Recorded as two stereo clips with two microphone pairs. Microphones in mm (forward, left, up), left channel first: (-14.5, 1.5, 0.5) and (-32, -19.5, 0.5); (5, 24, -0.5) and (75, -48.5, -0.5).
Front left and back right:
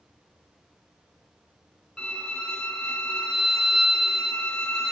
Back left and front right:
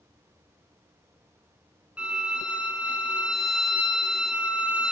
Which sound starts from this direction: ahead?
A violin, at 2.0 s.